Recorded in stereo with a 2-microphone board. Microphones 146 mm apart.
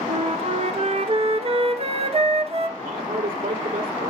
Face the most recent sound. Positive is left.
turn(degrees=-75)  # may be behind; listen again after turning